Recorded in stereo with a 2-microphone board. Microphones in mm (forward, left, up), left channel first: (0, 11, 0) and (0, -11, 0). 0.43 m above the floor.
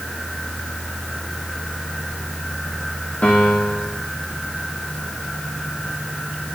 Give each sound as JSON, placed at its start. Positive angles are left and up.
{"t": 3.2, "sound": "a piano", "side_deg": 60, "distance_m": 6.5}